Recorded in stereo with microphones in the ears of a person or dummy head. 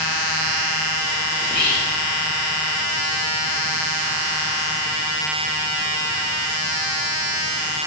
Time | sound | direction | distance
1.4 | whispering | 5° left (ahead or behind) | 3.5 m